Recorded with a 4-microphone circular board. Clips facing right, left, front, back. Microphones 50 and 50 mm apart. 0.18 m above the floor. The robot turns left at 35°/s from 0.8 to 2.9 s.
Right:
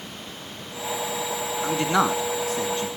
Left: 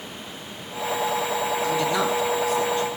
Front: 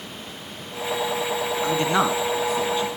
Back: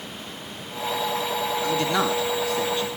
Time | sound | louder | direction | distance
1.6 | a man speaking | right 4 dB, front 3 dB | 45° right | 1.5 m